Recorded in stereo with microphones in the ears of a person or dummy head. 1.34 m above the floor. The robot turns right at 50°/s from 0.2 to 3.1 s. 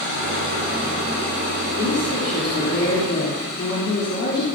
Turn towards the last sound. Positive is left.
turn(degrees=125)